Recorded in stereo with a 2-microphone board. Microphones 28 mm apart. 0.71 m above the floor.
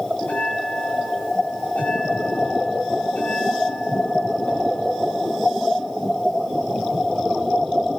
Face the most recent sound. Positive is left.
turn(degrees=70)  # may be behind; listen again after turning